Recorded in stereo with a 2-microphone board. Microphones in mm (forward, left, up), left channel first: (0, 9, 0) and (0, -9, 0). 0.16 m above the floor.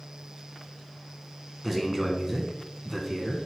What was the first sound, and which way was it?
A man speaking, 5° right (ahead or behind).